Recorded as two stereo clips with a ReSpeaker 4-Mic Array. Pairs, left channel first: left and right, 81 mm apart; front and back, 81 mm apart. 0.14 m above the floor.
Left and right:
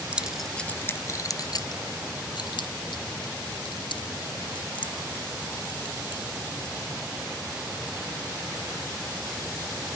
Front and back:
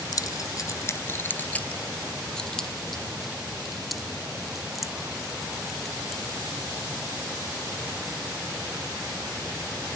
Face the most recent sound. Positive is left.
turn(degrees=95)